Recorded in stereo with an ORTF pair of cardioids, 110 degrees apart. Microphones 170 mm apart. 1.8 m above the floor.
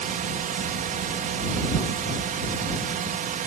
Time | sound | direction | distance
0.0 | a drone | 55° right | ?